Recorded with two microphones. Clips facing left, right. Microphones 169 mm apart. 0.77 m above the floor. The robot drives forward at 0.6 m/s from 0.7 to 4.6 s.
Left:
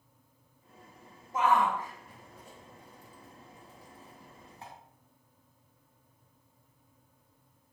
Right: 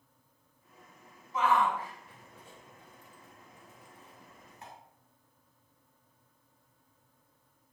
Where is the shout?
50° left (ahead or behind), 3.5 m; by 4.7 s 35° left (ahead or behind), 5 m.